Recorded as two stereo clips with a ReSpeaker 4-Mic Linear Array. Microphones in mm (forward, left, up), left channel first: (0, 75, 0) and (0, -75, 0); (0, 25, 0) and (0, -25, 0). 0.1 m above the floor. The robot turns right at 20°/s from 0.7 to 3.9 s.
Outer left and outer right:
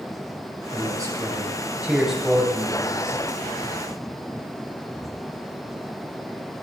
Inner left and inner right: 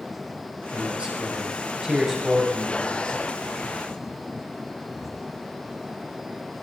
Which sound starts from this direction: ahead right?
A man speaking, at 0.7 s.